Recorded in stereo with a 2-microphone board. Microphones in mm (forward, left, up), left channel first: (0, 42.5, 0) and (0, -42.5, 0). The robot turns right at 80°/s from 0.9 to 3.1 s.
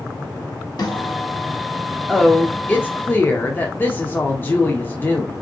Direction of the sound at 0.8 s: 55° left.